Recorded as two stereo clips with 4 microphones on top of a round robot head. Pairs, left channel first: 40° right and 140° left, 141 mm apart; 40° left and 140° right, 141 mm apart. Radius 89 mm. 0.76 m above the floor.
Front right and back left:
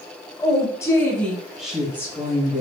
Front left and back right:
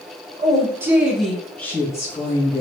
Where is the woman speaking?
90° right, 1.0 m; by 2.6 s 80° left, 1.1 m.